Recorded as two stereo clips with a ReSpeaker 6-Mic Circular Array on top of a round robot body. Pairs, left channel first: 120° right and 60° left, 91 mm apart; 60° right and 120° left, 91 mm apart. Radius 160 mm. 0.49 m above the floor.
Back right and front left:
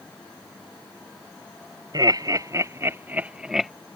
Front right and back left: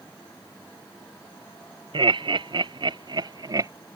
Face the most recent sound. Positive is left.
turn(degrees=150)